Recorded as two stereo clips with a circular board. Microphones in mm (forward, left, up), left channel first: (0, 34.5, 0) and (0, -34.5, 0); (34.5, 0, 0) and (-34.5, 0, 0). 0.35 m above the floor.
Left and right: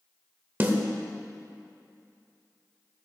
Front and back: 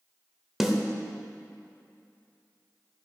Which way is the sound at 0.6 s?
100° right.